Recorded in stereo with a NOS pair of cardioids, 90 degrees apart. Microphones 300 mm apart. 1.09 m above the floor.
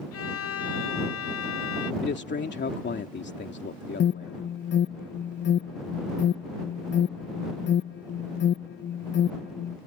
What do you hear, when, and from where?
0.1 s a violin: 50° left
2.0 s a man speaking: 40° left
4.0 s an alarm: 40° left